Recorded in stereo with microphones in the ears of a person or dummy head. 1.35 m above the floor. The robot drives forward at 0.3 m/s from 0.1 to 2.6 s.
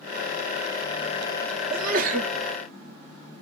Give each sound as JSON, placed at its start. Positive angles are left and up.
{"t": 1.7, "sound": "a sneeze", "side_deg": -45, "distance_m": 0.6}